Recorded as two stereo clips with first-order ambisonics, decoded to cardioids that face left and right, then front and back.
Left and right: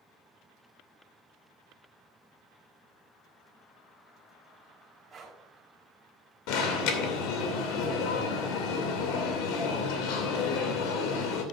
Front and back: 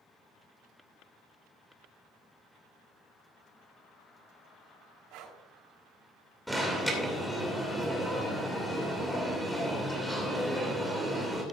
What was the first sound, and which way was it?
Breathing, 165° right.